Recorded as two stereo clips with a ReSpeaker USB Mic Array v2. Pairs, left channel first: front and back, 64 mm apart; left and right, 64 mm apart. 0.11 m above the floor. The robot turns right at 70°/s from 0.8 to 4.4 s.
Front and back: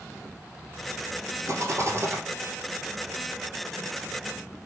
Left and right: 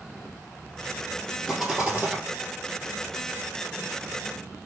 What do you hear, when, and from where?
1.4 s a rattle: 175° left, 1.6 m; by 2.2 s 135° right, 1.6 m